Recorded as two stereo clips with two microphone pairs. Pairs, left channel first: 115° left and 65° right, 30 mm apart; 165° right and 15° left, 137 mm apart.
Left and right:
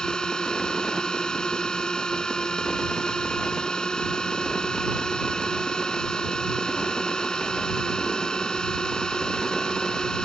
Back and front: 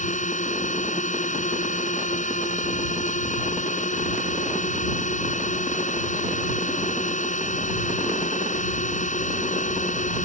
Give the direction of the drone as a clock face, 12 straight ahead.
6 o'clock.